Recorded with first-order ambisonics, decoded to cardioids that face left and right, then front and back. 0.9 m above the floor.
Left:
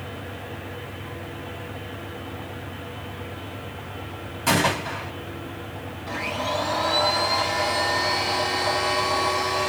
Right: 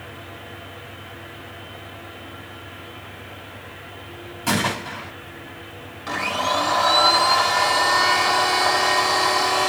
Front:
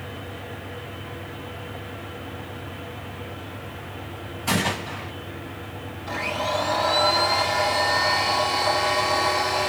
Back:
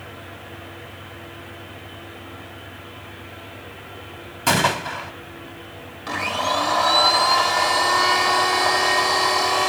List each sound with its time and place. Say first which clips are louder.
4.5 s a gunshot: left 1 dB, back 6 dB; 170° left, 2.5 m
6.1 s a blender: right 5 dB, back 3 dB; 140° right, 1.8 m